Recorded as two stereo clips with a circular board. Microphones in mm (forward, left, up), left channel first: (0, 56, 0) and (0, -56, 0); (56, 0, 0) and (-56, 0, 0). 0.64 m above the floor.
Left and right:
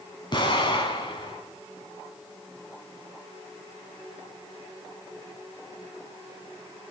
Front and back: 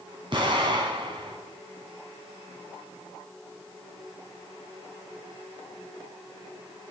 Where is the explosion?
135° left, 3 m.